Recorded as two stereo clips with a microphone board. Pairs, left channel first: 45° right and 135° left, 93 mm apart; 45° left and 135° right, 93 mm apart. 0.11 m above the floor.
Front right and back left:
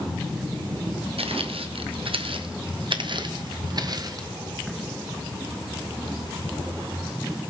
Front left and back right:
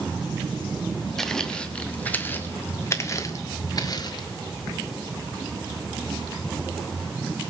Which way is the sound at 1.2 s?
130° left.